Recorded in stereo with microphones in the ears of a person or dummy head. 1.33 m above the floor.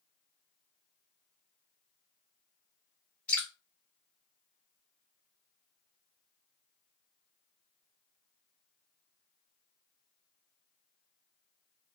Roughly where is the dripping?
Centre.